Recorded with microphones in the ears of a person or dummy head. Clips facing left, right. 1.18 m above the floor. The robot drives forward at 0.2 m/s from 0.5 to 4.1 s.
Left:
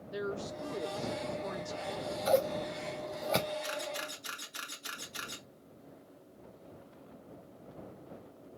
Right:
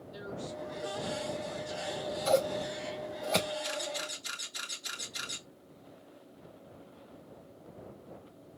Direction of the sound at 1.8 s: 5° right (ahead or behind).